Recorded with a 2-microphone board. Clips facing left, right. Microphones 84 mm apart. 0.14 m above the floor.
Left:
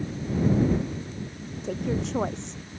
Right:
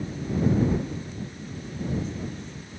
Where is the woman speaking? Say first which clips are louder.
Left 3 dB; 75° left (ahead or behind).